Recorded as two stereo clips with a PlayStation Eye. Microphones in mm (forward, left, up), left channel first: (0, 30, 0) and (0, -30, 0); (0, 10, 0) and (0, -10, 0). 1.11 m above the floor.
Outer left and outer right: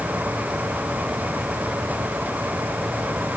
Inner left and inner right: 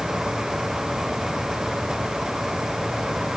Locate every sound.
Only background noise.